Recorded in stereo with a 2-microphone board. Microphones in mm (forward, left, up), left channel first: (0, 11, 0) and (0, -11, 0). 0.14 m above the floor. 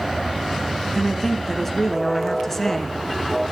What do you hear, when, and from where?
0.9 s a woman speaking: 15° left (ahead or behind), 1.4 m